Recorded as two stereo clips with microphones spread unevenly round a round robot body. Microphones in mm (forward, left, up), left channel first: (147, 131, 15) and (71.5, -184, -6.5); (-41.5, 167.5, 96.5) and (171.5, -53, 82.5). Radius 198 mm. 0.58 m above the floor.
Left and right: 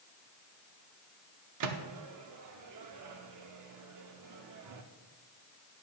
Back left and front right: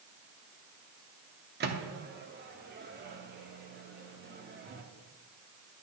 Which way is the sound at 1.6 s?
100° right.